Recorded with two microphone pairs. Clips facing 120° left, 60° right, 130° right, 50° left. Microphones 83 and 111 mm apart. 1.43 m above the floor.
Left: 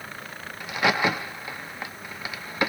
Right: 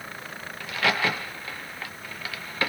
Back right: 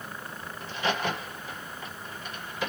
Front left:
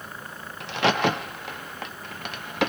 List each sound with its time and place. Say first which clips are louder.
0.6 s a crack: left 2 dB, front left 7 dB; 50° left, 0.6 m